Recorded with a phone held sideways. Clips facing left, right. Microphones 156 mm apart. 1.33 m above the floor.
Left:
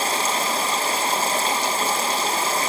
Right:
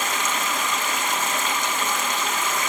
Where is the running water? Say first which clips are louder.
Left 3 dB; 35° left (ahead or behind), 1.2 m.